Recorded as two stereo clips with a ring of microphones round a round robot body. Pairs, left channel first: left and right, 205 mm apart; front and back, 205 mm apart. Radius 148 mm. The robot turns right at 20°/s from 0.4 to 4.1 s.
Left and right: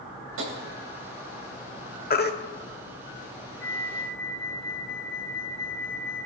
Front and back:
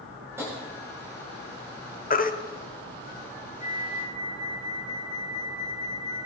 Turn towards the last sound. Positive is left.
turn(degrees=120)